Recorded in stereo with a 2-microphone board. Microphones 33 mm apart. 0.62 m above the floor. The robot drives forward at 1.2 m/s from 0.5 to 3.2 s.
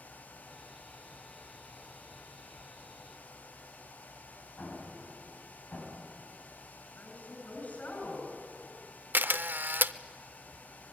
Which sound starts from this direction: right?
A camera shutter, at 9.1 s.